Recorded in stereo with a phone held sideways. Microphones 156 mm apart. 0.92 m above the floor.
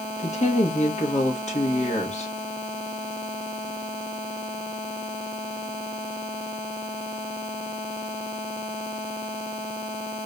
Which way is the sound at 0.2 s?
50° left (ahead or behind).